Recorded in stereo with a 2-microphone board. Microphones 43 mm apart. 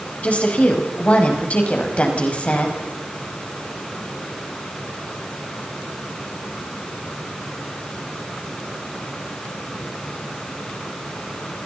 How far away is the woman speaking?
About 6 m.